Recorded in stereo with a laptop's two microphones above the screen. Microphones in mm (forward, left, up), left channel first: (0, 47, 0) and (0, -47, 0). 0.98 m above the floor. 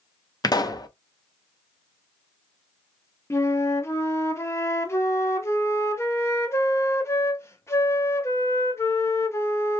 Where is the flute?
30° left (ahead or behind), 0.5 m.